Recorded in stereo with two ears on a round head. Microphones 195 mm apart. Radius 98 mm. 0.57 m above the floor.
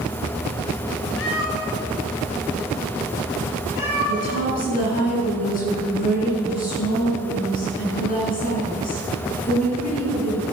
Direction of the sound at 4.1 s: 40° left (ahead or behind).